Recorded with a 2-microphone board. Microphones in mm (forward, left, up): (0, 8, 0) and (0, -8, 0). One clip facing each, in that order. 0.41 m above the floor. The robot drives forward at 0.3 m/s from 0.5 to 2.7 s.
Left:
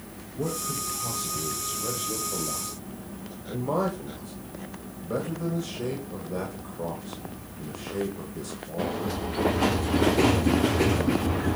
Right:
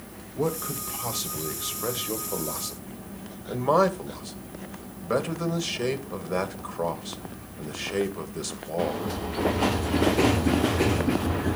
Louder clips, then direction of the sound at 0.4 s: Right 2 dB; 50° right (ahead or behind).